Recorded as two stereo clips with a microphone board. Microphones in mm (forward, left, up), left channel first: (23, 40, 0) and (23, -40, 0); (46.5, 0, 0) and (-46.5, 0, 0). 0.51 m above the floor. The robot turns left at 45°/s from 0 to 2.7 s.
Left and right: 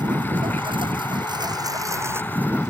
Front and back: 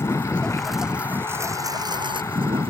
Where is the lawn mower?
65° right; by 2.7 s 170° right.